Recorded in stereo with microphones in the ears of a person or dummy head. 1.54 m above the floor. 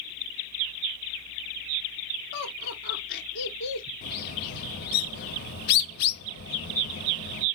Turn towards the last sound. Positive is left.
turn(degrees=50)  # may be behind; listen again after turning